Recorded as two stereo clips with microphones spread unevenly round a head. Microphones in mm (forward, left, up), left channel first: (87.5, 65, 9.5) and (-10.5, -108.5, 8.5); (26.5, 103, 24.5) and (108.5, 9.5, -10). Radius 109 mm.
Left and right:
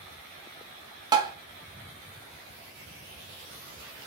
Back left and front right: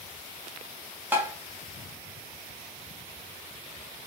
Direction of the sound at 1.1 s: 70° right.